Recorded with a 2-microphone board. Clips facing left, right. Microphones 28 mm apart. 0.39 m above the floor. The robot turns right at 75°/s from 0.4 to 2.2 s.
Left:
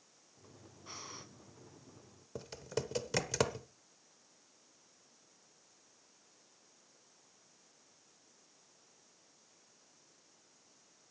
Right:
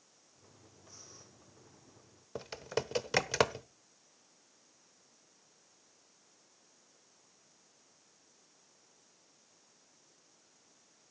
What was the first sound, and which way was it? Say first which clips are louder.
Breathing: left 9 dB; 80° left.